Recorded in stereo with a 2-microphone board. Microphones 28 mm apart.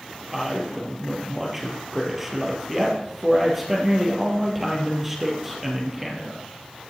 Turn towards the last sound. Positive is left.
turn(degrees=-10)  # may be behind; listen again after turning